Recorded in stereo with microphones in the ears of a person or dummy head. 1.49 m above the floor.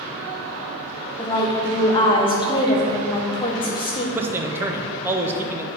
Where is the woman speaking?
30° left (ahead or behind), 1.0 m.